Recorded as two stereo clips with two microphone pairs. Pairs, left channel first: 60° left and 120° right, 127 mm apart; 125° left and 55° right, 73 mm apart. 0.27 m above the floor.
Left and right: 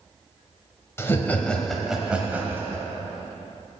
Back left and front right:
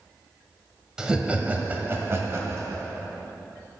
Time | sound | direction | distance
1.0 | laughter | 15° left | 1.1 m